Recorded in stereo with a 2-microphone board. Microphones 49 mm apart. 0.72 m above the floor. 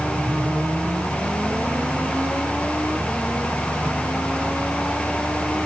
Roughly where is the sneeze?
No sneeze in this recording.